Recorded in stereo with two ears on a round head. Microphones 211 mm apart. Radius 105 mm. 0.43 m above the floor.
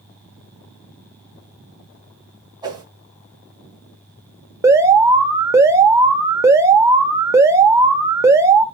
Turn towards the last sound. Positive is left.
turn(degrees=-15)  # may be behind; listen again after turning